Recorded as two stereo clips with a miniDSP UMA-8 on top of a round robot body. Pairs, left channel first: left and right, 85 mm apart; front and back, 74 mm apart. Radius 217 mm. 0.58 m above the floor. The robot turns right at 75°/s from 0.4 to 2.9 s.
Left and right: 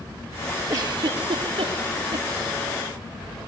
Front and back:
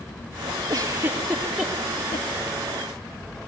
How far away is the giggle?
About 4.5 m.